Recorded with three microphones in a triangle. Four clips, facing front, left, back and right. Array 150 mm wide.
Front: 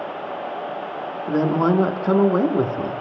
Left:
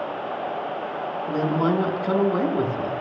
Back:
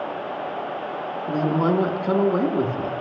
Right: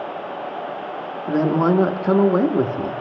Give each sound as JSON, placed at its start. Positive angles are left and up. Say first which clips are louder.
{"t": 1.3, "sound": "a woman speaking", "louder": "right 5 dB, front 3 dB", "azimuth_deg": -55, "distance_m": 0.7}